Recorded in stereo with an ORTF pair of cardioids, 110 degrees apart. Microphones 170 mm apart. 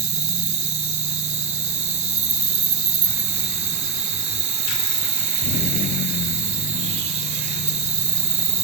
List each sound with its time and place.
0.0 s an insect: 40° right, 0.8 m